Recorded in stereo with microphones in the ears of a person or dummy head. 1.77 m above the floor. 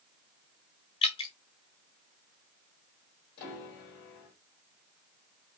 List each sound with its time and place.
1.0 s dripping: 25° left (ahead or behind), 0.8 m
3.4 s a piano: 45° left (ahead or behind), 2.5 m